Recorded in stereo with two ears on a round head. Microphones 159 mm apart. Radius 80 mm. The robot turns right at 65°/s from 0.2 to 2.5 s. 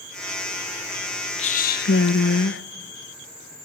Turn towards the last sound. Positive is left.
turn(degrees=110)